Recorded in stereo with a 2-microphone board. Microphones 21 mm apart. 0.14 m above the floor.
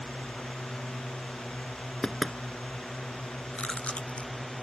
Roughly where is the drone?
Left.